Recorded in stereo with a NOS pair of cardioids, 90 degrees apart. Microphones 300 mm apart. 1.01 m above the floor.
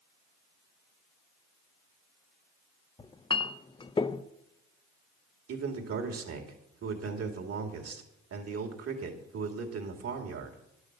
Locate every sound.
3.0 s a clink: 20° left, 0.6 m
5.5 s a man speaking: 55° right, 2.5 m